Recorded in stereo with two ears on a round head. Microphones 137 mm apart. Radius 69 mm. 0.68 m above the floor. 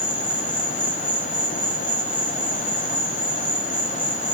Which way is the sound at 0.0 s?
10° left (ahead or behind).